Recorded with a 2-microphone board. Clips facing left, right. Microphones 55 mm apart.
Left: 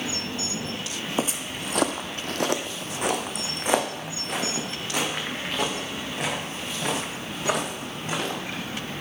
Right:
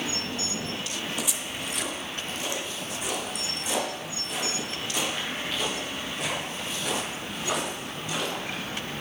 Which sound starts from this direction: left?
Footsteps, at 1.2 s.